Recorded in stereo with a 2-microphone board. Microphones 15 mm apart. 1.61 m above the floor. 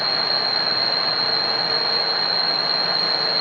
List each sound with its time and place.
0.0 s an insect: 15° right (ahead or behind)